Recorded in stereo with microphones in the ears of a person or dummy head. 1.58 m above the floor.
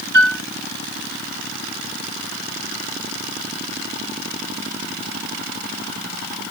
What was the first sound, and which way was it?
A piano, 60° right (ahead or behind).